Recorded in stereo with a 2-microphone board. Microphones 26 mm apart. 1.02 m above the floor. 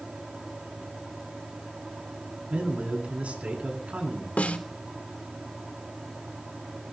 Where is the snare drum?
80° left, 3 m.